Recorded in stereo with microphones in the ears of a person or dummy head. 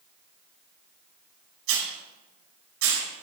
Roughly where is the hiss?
Right.